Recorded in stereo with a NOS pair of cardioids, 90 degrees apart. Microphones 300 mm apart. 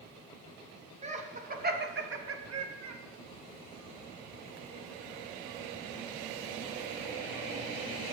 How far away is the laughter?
About 3.5 m.